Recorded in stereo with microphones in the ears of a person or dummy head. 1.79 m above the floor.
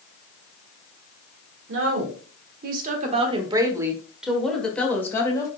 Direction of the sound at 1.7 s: 80° right.